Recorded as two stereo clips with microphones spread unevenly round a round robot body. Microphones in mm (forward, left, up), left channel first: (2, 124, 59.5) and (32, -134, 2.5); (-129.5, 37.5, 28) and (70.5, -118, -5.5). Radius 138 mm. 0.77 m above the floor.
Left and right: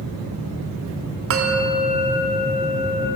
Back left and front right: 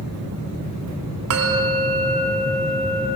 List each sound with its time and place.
1.3 s a bell: 55° right, 1.2 m